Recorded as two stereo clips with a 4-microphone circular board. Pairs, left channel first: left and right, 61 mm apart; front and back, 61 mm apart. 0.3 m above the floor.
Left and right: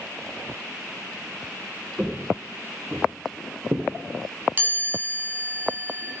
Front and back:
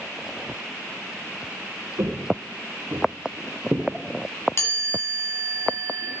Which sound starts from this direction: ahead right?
A chime, at 4.6 s.